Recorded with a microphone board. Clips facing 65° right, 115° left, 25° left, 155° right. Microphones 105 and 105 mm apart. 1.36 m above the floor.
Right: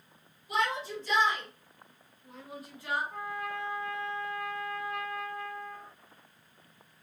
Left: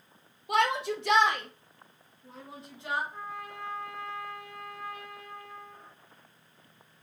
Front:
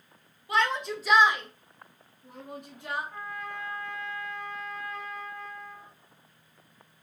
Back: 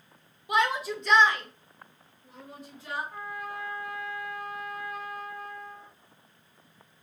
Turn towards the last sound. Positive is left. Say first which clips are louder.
# right 4 dB, back 1 dB
turn(degrees=-75)